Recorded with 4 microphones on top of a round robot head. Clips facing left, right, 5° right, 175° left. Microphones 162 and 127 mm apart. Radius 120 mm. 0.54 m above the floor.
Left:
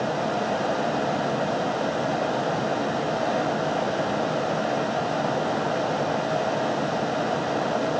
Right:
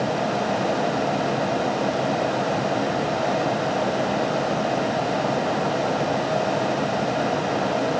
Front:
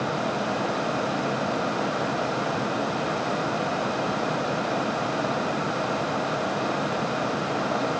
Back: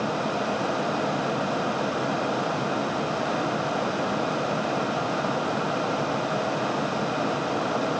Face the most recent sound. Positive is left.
No sound to turn to.